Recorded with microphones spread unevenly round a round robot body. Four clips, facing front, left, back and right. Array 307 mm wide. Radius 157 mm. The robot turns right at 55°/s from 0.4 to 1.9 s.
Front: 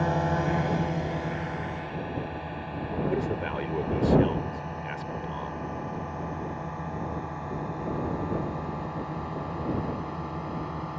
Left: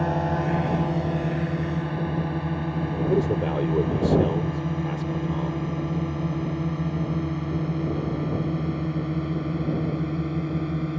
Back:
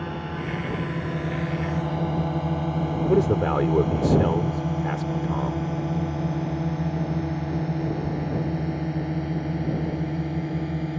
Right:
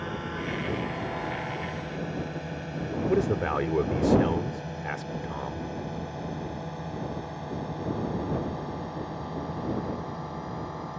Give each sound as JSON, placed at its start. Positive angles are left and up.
{"t": 0.0, "sound": "a drone", "azimuth_deg": 65}
{"t": 3.1, "sound": "a man speaking", "azimuth_deg": 165}